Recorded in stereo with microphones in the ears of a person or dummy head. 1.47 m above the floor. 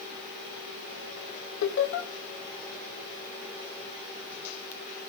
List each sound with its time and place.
1.6 s laughter: 60° left (ahead or behind), 0.9 m